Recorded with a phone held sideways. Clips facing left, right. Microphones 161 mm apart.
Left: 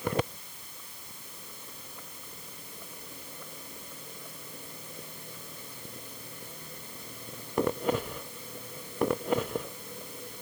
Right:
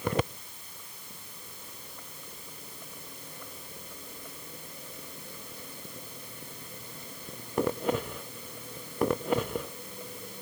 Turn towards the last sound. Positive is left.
No sound to turn to.